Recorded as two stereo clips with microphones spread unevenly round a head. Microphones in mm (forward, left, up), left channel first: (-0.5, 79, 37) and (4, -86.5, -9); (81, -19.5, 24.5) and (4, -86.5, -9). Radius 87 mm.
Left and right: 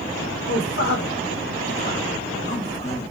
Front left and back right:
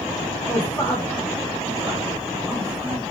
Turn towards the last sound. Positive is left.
turn(degrees=150)